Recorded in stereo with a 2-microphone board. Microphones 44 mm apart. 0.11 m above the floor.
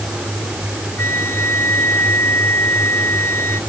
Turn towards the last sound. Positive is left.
turn(degrees=65)  # may be behind; listen again after turning